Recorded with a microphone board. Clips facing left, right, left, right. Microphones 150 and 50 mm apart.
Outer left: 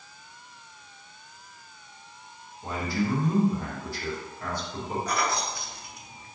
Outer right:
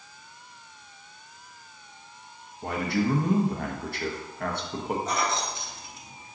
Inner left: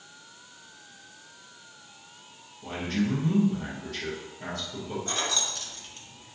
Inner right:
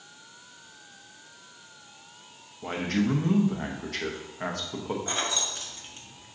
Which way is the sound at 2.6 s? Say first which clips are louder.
Outer right 2 dB, inner right 2 dB; 65° right (ahead or behind).